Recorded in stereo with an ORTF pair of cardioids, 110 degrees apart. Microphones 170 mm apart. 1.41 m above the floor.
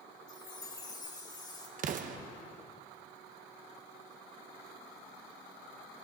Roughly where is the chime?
Ahead left.